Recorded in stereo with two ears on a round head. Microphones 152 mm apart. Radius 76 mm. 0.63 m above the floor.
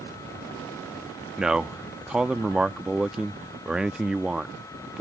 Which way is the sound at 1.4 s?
5° right (ahead or behind).